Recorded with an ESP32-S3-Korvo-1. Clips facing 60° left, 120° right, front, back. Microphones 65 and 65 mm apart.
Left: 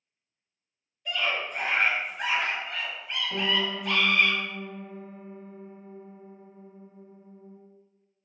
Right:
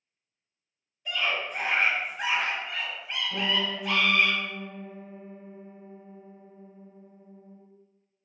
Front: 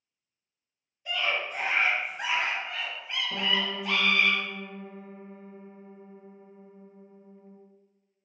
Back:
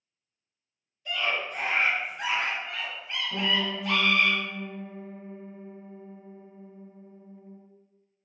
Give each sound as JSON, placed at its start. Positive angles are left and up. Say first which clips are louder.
{"t": 1.1, "sound": "a scream", "louder": "even, even", "azimuth_deg": -40, "distance_m": 1.2}
{"t": 3.3, "sound": "a piano", "louder": "left 1 dB, back 2 dB", "azimuth_deg": 30, "distance_m": 1.0}